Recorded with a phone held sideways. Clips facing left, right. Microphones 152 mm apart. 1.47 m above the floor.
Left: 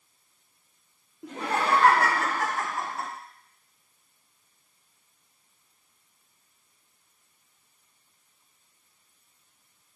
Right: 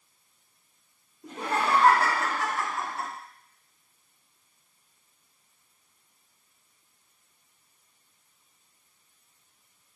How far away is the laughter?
About 1.1 m.